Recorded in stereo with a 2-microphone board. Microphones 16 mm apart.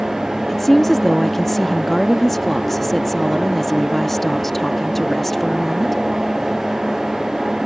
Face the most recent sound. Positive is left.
turn(degrees=15)  # may be behind; listen again after turning